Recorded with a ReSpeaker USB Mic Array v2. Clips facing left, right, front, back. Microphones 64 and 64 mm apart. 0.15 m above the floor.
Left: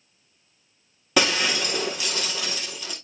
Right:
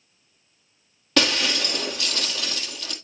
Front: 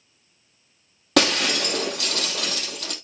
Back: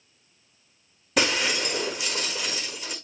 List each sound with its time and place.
1.2 s breaking glass: 10° left, 1.9 m